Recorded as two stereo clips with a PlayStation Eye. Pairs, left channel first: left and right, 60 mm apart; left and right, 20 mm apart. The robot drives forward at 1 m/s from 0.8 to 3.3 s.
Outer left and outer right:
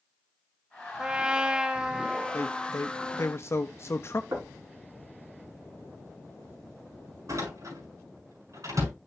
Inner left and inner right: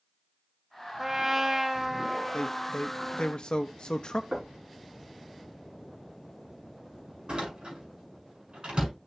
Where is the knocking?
60° right (ahead or behind), 5 m.